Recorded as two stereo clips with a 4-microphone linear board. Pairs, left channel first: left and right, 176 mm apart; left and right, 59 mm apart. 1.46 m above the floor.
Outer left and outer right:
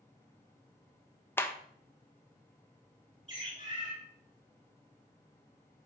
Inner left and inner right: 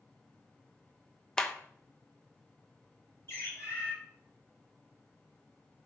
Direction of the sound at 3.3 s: 40° left (ahead or behind).